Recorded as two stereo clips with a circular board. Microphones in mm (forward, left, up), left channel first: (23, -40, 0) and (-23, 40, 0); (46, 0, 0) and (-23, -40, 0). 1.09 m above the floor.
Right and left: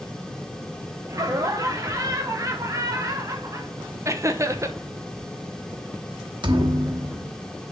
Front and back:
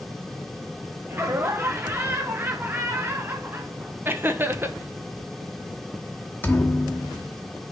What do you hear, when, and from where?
1.1 s laughter: 160° left, 0.7 m
4.0 s laughter: 160° left, 0.8 m
6.4 s a thud: 95° left, 1.0 m